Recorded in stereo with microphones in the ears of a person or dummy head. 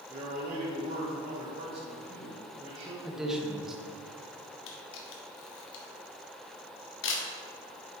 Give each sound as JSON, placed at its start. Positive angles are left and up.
{"t": 0.1, "sound": "a man speaking", "side_deg": -35, "distance_m": 1.4}
{"t": 3.0, "sound": "a man speaking", "side_deg": 0, "distance_m": 1.0}
{"t": 4.7, "sound": "a camera shutter", "side_deg": 70, "distance_m": 1.1}